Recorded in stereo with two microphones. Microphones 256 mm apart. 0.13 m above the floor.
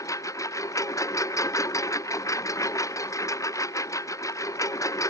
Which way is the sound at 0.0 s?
10° left (ahead or behind).